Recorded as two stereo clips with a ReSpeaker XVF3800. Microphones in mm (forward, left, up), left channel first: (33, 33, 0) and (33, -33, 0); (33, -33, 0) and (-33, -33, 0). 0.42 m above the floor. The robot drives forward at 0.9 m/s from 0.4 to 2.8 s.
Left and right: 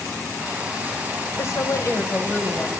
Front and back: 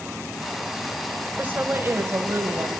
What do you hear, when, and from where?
1.4 s a woman speaking: 120° left, 1.7 m; by 2.7 s 145° left, 2.5 m